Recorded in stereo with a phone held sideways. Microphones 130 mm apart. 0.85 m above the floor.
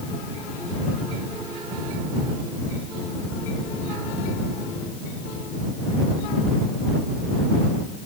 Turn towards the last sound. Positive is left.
No sound to turn to.